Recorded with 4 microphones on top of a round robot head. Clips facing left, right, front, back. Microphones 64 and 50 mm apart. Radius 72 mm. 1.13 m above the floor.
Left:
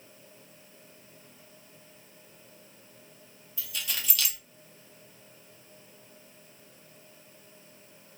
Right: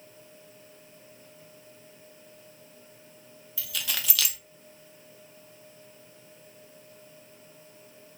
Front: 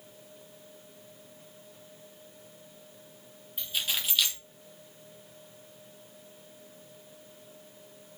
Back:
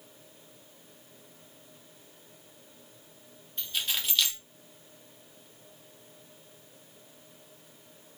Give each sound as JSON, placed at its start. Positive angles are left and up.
{"t": 3.6, "sound": "keys jangling", "azimuth_deg": -85, "distance_m": 0.6}